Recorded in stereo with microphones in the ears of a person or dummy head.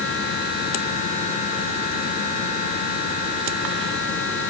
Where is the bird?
I don't hear a bird.